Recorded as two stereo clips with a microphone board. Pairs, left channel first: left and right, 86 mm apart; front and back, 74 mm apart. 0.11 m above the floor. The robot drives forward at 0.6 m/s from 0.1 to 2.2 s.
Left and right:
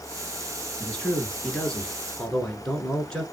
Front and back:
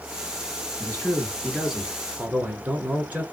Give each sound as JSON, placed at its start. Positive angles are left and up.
{"t": 0.8, "sound": "a man speaking", "azimuth_deg": 25, "distance_m": 1.1}